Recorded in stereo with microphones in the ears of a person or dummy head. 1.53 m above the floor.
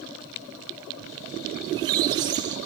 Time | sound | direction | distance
1.6 | a squeak | 25° right (ahead or behind) | 0.6 m